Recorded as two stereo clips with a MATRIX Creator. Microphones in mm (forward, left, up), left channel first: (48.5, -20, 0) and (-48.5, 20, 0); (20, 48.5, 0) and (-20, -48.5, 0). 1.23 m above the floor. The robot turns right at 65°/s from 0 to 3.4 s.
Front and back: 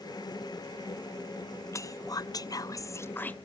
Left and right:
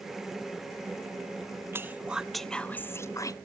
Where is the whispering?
65° right, 0.5 m; by 3.4 s 45° left, 0.5 m.